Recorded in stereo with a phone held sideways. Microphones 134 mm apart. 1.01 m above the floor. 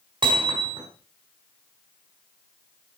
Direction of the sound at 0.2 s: 35° right (ahead or behind).